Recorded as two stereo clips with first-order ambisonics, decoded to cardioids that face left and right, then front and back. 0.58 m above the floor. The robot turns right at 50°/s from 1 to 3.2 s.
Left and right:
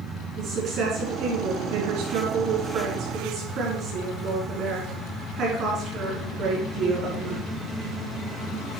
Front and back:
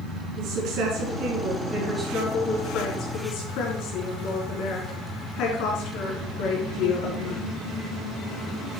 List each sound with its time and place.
0.4 s a woman speaking: 145° right, 5.5 m; by 7.4 s 35° right, 5.5 m